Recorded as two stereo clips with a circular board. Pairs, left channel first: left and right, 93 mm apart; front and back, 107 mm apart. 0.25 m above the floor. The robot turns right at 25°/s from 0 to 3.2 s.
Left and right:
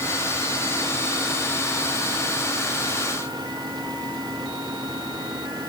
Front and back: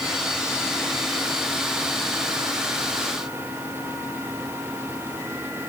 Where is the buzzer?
No buzzer in this recording.